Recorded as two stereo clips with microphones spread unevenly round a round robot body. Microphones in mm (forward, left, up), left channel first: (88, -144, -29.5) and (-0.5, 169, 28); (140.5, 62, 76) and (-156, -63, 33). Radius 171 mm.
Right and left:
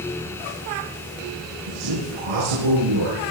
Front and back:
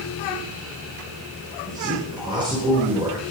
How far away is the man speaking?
About 6 m.